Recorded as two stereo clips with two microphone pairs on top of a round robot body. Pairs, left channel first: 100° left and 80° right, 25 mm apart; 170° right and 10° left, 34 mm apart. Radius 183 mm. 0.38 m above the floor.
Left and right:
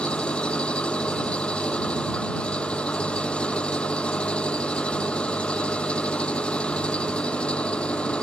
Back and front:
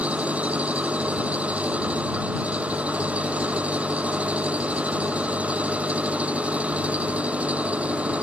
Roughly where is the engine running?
Ahead left.